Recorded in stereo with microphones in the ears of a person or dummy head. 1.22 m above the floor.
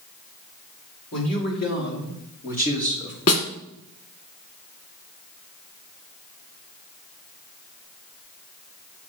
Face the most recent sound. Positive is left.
turn(degrees=45)  # may be behind; listen again after turning